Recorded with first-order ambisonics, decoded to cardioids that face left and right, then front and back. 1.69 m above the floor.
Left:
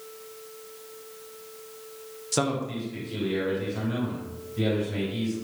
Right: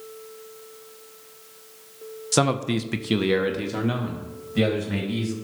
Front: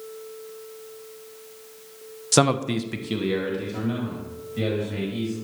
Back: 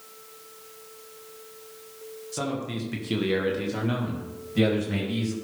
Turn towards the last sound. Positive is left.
turn(degrees=-120)